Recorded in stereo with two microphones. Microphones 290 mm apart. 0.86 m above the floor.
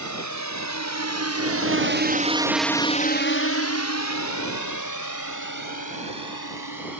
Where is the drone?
70° right (ahead or behind); by 7.0 s 80° left.